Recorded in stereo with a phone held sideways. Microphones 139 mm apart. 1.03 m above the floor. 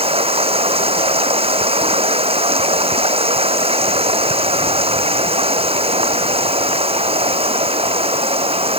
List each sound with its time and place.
0.0 s running water: 40° right (ahead or behind)